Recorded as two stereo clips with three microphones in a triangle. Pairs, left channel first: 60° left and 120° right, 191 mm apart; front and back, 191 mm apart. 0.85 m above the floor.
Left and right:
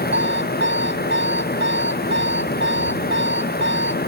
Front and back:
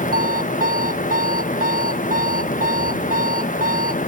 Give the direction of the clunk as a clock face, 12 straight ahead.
I don't hear a clunk.